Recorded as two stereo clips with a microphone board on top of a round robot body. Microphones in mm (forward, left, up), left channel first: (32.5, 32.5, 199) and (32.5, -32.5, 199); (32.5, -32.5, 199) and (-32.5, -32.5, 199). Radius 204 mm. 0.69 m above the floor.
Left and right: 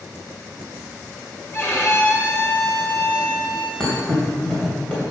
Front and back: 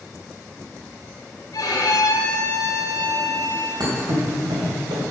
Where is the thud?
170° left, 2.5 m.